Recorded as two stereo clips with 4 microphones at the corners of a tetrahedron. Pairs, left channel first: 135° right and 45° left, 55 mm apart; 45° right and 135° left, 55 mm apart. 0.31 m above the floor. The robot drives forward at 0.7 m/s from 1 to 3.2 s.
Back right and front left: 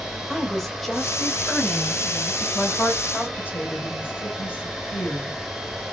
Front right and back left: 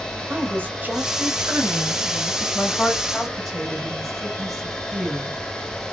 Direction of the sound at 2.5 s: 95° right.